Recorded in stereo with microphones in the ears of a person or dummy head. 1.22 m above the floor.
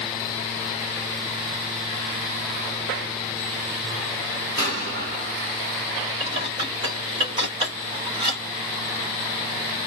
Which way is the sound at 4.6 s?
50° right (ahead or behind).